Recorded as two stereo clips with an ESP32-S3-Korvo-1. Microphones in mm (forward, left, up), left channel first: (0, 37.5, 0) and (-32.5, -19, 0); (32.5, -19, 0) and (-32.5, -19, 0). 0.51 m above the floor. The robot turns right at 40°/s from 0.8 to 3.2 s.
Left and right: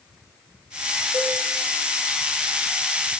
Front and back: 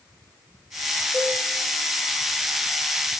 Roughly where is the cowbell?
Left.